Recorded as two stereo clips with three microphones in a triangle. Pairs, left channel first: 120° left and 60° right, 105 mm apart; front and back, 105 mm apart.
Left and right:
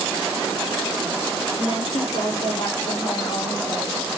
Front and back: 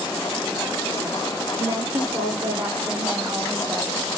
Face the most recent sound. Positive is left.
turn(degrees=125)